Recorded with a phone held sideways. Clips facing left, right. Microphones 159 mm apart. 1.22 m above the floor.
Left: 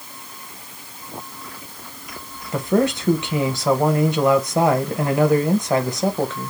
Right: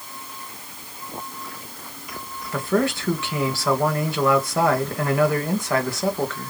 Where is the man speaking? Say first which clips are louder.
Left 3 dB; 20° left (ahead or behind), 1.2 m.